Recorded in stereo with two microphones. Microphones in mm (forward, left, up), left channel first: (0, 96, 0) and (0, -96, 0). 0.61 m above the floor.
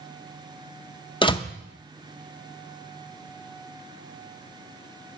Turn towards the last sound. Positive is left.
turn(degrees=25)  # may be behind; listen again after turning